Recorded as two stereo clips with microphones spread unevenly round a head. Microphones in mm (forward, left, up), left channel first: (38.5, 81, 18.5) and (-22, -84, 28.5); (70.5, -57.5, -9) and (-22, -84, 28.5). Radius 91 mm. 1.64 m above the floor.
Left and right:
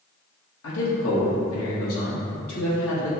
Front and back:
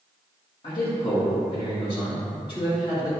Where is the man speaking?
85° left, 1.2 m.